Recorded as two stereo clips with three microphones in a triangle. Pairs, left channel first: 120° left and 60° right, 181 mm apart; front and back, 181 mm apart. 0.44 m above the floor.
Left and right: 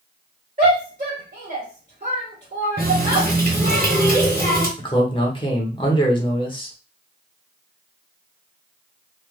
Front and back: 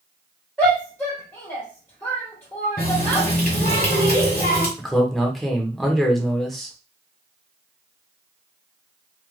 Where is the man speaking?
90° left, 0.8 m.